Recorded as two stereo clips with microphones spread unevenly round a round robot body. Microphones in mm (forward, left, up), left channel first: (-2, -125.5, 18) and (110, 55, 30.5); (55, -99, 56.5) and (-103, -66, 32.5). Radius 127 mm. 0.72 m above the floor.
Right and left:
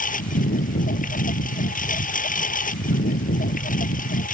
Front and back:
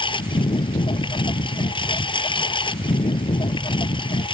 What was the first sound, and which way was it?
A lawn mower, 70° right.